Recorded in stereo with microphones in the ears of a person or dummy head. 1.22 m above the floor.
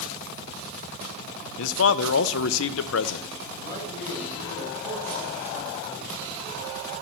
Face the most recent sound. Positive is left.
turn(degrees=25)  # may be behind; listen again after turning